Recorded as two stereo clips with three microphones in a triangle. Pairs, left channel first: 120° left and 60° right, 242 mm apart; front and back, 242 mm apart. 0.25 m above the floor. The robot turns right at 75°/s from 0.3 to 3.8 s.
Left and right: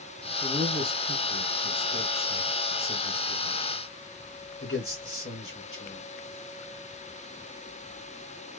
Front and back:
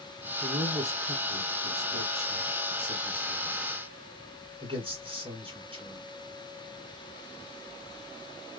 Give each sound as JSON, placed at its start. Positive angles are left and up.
{"t": 0.4, "sound": "a man speaking", "azimuth_deg": -135, "distance_m": 1.9}